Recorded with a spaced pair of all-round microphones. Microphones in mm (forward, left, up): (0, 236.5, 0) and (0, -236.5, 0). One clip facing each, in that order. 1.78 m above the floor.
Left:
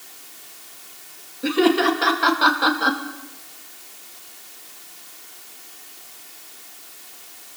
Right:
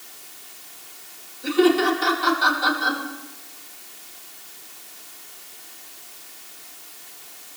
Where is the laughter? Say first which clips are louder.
Even; 90° left, 4 m.